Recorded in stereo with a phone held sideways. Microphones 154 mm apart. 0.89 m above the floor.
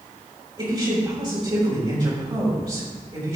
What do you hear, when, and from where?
0.6 s a woman speaking: 35° right (ahead or behind), 4.5 m